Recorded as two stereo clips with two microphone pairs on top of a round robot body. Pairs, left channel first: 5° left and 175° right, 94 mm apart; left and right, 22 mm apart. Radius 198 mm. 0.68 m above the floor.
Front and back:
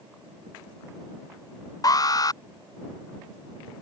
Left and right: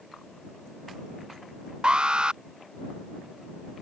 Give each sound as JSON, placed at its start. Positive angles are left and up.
{"t": 1.8, "sound": "an alarm", "azimuth_deg": -45}